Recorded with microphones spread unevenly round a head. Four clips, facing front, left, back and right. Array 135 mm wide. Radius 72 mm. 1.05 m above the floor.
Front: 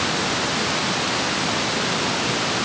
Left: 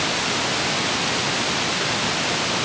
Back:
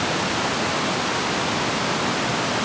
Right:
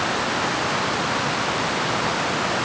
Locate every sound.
Only background noise.